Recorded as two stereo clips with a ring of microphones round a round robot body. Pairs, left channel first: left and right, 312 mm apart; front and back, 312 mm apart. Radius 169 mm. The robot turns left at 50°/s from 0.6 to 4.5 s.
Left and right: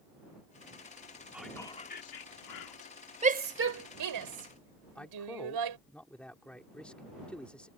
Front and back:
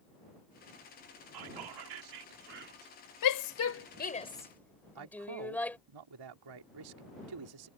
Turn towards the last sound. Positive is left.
turn(degrees=175)